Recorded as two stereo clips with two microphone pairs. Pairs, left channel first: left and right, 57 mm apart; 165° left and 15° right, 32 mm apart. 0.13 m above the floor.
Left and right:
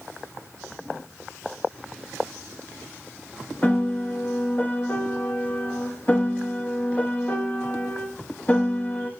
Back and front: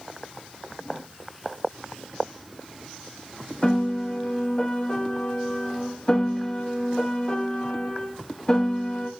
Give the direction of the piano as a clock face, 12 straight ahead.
8 o'clock.